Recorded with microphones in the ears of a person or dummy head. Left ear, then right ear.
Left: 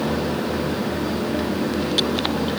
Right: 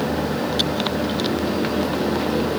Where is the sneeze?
I don't hear a sneeze.